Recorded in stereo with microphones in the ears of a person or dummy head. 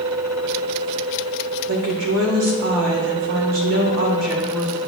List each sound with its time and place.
1.7 s a woman speaking: 70° right (ahead or behind), 1.6 m